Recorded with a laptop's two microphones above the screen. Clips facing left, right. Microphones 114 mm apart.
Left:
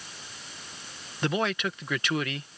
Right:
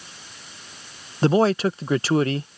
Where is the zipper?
No zipper in this recording.